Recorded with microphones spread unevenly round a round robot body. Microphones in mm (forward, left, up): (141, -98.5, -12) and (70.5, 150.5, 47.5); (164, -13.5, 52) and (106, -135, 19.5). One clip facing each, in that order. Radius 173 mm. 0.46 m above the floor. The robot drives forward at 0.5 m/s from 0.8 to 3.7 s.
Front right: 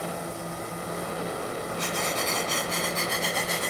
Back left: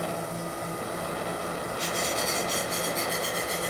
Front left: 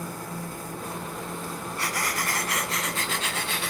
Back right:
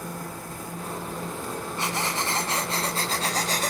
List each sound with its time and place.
1.8 s breathing: 45° right, 2.5 m; by 3.7 s 70° right, 2.0 m